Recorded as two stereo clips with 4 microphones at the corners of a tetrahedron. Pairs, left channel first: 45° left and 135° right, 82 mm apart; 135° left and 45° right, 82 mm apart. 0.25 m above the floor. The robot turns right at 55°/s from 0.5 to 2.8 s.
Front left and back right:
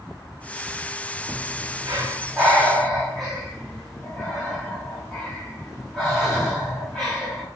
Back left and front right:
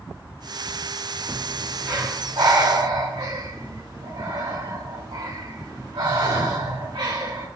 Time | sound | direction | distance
1.3 | breathing | 130° right | 6 m